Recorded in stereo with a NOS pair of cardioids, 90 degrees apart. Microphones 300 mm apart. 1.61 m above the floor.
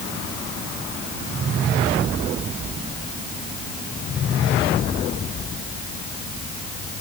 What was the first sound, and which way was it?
Only background noise.